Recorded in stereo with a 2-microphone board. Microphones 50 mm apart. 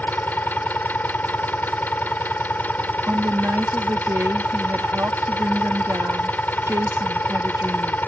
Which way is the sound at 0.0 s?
35° left (ahead or behind).